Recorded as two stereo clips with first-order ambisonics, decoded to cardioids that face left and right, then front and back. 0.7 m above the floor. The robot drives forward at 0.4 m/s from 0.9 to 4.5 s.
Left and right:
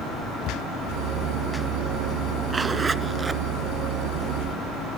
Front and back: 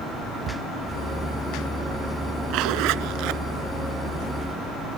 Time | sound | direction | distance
0.4 | a cupboard door | 125° left | ?
2.5 | a zipper | 160° right | ?